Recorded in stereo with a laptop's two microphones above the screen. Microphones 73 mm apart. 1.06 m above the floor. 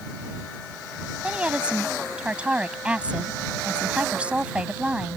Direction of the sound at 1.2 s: 15° right (ahead or behind).